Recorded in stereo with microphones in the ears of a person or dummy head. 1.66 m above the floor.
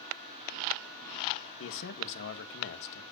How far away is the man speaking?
About 1.2 m.